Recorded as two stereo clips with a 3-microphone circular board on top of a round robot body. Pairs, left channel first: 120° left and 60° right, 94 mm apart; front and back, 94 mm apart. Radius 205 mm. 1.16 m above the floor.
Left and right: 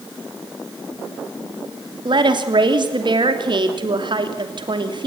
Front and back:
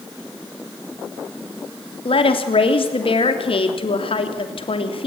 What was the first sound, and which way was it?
A woman speaking, 25° right.